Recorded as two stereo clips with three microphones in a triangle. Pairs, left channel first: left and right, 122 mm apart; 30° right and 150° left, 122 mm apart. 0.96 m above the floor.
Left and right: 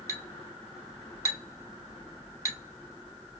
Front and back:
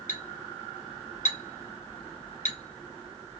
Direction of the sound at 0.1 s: 20° right.